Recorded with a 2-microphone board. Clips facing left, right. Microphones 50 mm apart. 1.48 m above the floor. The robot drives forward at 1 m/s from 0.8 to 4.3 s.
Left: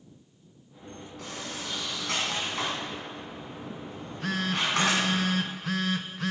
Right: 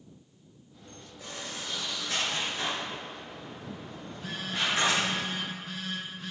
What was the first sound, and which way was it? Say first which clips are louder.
A sliding door: left 2 dB; 70° left (ahead or behind).